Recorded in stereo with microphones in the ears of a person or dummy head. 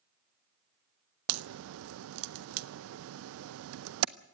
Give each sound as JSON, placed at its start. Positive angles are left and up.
{"t": 1.3, "sound": "a crack", "side_deg": -75, "distance_m": 0.6}